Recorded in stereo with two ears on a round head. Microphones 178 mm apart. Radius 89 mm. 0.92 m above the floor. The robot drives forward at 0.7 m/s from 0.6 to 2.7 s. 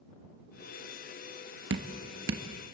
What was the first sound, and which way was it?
Dripping, 60° right (ahead or behind).